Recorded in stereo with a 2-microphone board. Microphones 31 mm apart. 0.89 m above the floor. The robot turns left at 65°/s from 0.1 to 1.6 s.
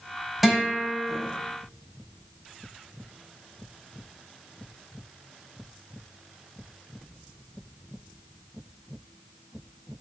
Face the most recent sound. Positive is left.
turn(degrees=-80)